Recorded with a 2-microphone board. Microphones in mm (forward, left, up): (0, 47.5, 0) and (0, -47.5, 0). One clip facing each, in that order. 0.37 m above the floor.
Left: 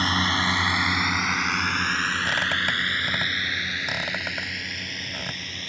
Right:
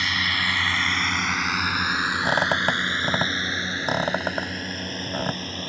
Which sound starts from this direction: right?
A squeak, at 2.2 s.